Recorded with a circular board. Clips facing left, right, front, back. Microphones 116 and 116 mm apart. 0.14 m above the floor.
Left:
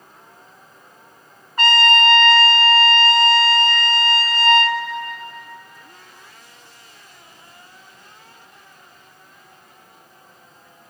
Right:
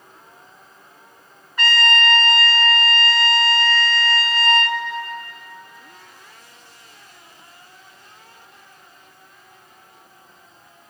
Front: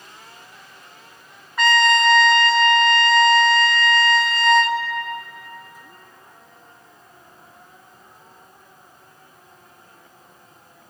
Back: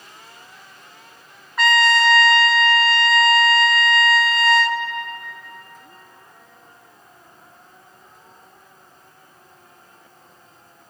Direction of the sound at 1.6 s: 90° left.